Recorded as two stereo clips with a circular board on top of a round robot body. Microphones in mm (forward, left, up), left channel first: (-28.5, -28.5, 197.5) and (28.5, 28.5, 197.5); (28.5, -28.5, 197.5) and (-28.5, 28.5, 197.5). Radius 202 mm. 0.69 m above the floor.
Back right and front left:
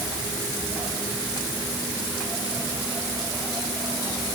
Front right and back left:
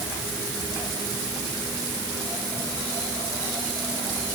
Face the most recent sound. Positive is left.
No sound to turn to.